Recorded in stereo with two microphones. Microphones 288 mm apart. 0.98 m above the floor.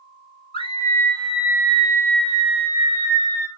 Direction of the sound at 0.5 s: 20° left (ahead or behind).